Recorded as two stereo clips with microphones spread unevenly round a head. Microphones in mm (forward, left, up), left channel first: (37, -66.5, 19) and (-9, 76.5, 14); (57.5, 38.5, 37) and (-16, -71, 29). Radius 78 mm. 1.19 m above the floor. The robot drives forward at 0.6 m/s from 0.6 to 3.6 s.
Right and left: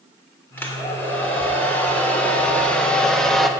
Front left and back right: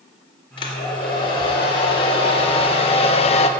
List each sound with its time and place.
0.6 s a hair dryer: 5° left, 2.5 m; by 3.5 s 15° left, 0.9 m